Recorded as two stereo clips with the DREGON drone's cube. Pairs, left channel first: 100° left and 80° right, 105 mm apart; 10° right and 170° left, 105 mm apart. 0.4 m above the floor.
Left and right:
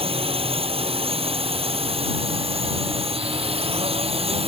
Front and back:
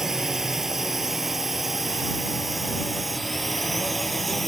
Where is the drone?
105° right; by 4.5 s 100° right.